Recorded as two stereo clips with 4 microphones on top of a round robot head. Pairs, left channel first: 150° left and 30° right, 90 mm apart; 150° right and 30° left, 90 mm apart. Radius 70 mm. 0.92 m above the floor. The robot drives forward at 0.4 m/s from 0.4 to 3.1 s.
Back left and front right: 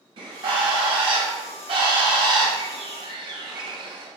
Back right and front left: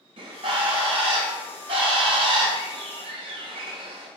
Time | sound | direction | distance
0.2 | a bird | 5° left | 3 m